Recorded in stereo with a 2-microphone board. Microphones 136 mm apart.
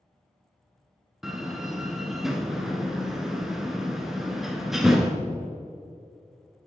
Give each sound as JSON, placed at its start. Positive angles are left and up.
{"t": 1.2, "sound": "a door slam", "side_deg": 0, "distance_m": 1.0}